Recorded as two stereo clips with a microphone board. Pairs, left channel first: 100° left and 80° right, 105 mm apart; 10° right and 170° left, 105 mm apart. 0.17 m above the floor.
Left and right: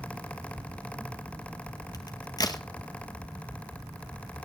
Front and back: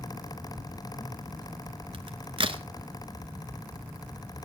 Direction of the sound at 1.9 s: 145° left.